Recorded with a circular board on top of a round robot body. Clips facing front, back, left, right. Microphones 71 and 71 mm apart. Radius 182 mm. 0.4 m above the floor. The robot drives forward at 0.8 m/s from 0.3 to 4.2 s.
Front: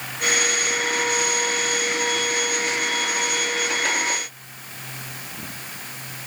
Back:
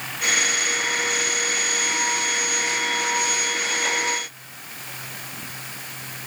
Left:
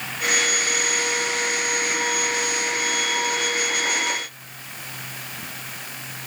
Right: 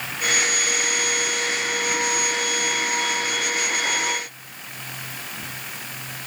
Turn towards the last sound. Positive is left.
No sound to turn to.